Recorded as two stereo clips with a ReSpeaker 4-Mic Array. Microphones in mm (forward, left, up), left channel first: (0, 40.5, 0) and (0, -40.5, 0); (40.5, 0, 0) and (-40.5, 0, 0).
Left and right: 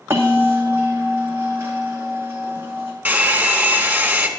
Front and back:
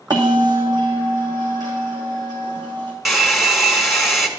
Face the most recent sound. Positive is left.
turn(degrees=-95)